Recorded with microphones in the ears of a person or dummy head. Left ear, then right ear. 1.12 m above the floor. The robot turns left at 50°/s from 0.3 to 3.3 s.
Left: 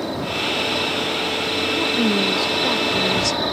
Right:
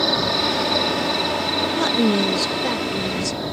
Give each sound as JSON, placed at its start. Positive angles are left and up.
{"t": 0.0, "sound": "an insect", "azimuth_deg": -75}
{"t": 1.8, "sound": "a woman speaking", "azimuth_deg": -120}